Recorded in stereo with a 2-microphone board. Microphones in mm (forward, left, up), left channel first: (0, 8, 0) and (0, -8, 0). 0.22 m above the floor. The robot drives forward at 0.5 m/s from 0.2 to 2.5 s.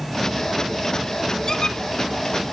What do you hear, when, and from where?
1.5 s a squeak: 40° left (ahead or behind), 0.9 m